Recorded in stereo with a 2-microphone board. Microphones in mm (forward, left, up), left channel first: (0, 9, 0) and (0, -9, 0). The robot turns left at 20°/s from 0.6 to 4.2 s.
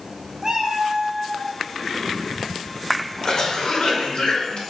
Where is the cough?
45° left (ahead or behind), 0.8 m; by 4.6 s 50° left (ahead or behind), 0.8 m.